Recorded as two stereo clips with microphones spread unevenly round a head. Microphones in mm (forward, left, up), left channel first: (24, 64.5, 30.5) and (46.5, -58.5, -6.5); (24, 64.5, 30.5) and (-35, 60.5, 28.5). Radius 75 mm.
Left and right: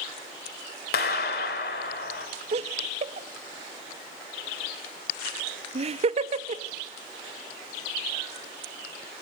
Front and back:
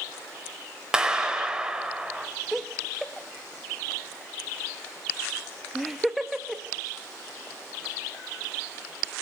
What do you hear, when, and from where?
0.9 s a clap: 105° left, 4.5 m
2.5 s laughter: 85° right, 1.4 m